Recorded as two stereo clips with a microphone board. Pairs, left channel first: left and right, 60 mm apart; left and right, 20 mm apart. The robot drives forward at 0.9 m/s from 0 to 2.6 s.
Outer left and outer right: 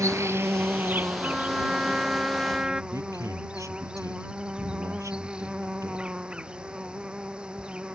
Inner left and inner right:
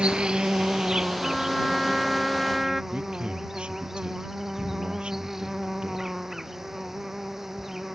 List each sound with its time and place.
0.0 s an insect: 65° right (ahead or behind); by 8.0 s 15° right (ahead or behind)
1.2 s a trumpet: 15° right (ahead or behind); by 2.8 s 10° right (ahead or behind)
2.9 s a man speaking: 65° right (ahead or behind)